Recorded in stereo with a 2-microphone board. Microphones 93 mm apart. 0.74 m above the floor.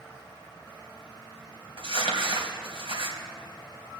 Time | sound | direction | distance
1.8 | crumpling | 75° right (ahead or behind) | 2.5 m